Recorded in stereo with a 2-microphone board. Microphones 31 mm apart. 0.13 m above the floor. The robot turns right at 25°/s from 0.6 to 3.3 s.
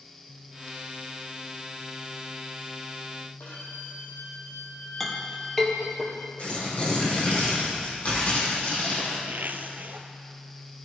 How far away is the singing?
No singing in this recording.